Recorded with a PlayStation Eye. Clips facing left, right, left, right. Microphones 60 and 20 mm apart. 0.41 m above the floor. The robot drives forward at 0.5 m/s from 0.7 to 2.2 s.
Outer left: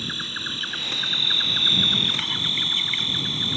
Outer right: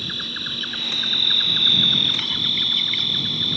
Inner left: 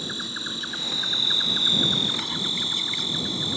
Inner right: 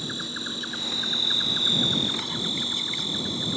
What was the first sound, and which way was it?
An insect, 5° left (ahead or behind).